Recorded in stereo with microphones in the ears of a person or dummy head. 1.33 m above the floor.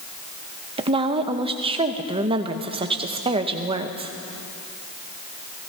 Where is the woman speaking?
25° right (ahead or behind), 0.8 m.